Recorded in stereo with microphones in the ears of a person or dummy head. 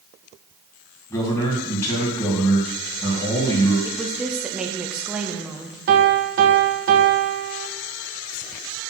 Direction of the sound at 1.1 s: 15° left (ahead or behind).